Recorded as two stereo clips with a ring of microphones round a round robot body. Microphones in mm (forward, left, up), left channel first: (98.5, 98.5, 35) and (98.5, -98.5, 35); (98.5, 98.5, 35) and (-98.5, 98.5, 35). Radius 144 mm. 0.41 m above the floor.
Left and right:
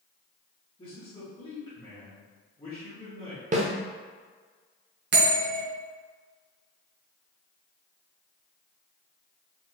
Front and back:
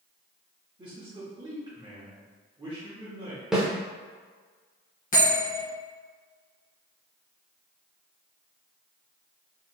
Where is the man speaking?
135° left, 1.2 m.